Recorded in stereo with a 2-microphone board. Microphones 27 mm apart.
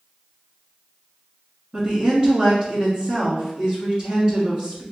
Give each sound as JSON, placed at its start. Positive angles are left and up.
{"t": 1.7, "sound": "a woman speaking", "side_deg": -35, "distance_m": 1.5}